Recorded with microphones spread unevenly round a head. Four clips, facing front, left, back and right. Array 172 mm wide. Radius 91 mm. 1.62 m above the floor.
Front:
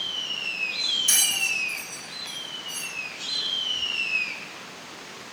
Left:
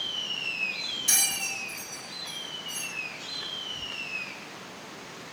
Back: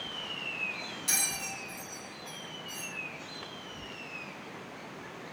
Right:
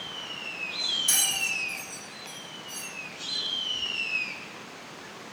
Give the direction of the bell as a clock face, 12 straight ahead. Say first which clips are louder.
Even, front 5 dB; 8 o'clock.